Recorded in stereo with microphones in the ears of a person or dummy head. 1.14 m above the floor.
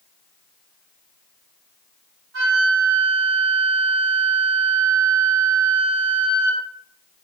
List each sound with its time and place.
2.3 s a flute: 85° right, 1.5 m